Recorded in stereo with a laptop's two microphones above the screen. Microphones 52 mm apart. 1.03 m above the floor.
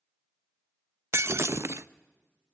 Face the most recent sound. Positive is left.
turn(degrees=-55)  # may be behind; listen again after turning